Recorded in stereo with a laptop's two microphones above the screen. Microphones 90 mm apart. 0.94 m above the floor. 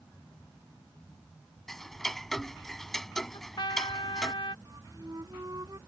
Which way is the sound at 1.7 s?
5° left (ahead or behind).